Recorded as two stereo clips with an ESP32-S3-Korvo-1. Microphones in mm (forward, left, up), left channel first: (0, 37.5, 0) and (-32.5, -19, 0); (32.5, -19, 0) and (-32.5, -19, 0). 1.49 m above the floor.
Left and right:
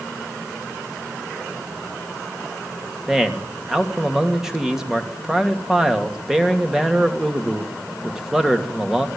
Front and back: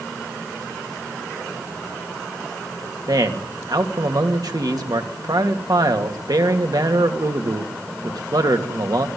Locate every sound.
3.1 s a man speaking: 155° left, 3 m